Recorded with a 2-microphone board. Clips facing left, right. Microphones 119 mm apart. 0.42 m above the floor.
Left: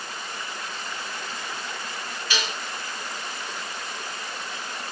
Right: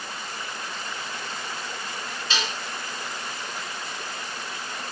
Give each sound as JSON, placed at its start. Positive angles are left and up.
{"t": 2.3, "sound": "dishes clattering", "side_deg": -25, "distance_m": 4.0}